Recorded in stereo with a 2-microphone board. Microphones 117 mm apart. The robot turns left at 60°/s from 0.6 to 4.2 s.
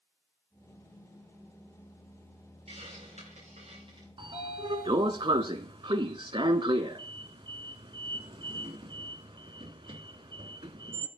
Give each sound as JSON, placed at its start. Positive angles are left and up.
{"t": 2.7, "sound": "a hiss", "azimuth_deg": -60, "distance_m": 8.0}
{"t": 4.2, "sound": "a sliding door", "side_deg": -45, "distance_m": 0.9}